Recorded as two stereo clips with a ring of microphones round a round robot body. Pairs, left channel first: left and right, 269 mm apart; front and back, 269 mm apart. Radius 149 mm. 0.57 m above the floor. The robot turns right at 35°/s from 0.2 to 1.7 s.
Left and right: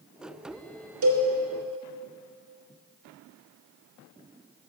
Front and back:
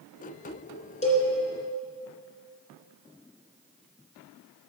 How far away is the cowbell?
About 2.5 m.